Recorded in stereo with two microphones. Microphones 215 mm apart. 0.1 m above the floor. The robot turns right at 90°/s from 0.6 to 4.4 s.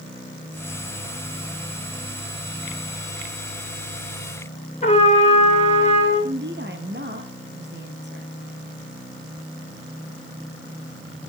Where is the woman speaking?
55° right (ahead or behind), 3 m.